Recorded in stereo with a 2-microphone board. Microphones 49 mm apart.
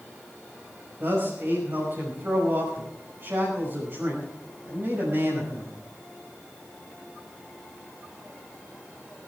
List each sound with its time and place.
1.0 s a man speaking: 55° right (ahead or behind), 5.5 m